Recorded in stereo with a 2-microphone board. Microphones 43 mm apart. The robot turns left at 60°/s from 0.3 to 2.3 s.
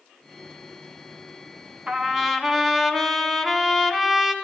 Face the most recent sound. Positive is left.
turn(degrees=-5)  # may be behind; listen again after turning